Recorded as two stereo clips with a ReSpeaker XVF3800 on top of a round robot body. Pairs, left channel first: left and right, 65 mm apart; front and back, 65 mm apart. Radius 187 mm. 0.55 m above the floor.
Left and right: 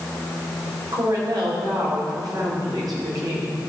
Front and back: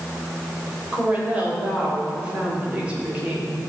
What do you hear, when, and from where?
0.9 s a woman speaking: 110° right, 3.5 m